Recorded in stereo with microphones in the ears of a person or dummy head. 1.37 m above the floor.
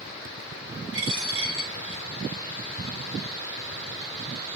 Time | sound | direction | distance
0.9 | a dropped coin | 35° right (ahead or behind) | 3 m